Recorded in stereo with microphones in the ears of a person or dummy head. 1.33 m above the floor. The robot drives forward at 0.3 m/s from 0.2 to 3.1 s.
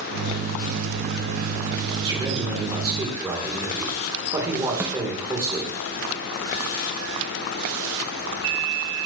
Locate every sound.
2.0 s a man speaking: 25° right (ahead or behind), 3 m
4.8 s a snare drum: 15° right (ahead or behind), 1.2 m